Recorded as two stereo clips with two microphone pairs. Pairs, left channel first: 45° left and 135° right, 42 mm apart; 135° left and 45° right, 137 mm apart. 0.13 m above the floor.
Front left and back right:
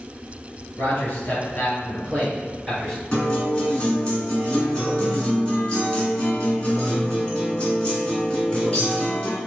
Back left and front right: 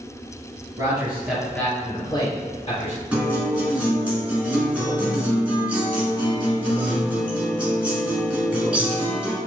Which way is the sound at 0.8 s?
10° left.